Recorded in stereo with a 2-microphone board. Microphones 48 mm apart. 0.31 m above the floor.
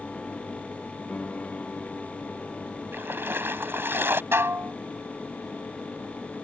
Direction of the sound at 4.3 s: 60° right (ahead or behind).